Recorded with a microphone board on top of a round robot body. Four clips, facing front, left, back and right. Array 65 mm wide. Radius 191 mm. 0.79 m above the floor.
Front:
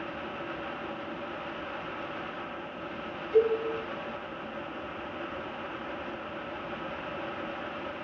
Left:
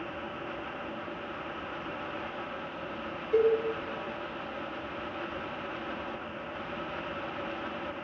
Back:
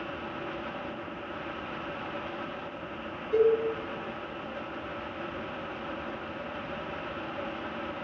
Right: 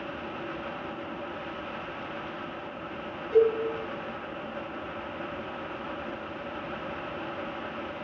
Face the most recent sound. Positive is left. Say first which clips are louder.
# right 3 dB, back 1 dB
turn(degrees=-110)